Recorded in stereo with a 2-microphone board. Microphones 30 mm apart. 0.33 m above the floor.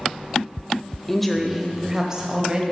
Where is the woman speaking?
10° left (ahead or behind), 0.9 m; by 2.6 s 35° right (ahead or behind), 1.4 m.